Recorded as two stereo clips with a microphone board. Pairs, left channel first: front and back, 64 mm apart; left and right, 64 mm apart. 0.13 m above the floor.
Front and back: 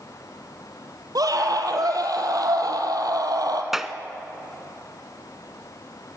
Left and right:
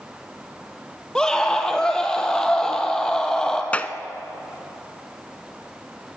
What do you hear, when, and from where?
1.1 s a scream: 170° left, 3 m
3.7 s a clap: 105° left, 0.8 m